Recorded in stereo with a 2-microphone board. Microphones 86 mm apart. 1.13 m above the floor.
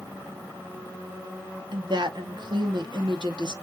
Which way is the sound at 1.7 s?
60° right (ahead or behind).